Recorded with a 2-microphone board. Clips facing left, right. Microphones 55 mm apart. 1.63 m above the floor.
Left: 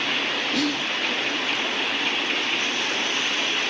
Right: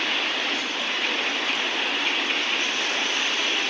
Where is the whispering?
75° left (ahead or behind), 0.7 m.